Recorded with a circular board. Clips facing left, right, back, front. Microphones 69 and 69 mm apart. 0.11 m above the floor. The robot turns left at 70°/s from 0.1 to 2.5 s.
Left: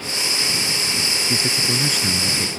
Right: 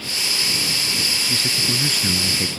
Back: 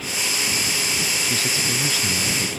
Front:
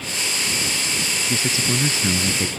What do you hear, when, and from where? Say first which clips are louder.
1.2 s a man speaking: left 2 dB, front 2 dB; 60° left; by 2.5 s 25° right